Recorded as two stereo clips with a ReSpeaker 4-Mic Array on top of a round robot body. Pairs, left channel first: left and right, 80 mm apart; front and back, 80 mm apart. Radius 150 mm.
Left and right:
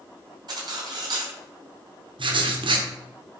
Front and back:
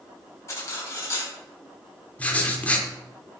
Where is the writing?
75° right, 1.8 m.